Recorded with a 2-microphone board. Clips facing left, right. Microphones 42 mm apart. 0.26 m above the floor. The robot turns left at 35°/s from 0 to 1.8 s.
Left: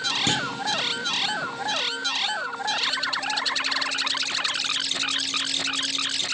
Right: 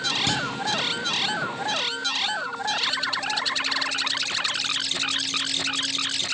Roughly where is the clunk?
Left.